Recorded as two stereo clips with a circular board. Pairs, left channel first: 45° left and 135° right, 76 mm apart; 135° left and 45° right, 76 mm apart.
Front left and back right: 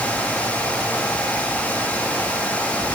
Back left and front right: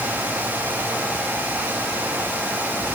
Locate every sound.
Only background noise.